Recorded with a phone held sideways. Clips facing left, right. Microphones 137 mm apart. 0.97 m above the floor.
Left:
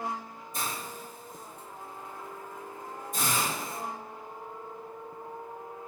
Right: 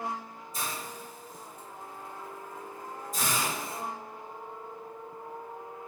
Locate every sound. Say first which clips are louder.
0.5 s a hiss: left 1 dB; 55° left (ahead or behind), 1.6 m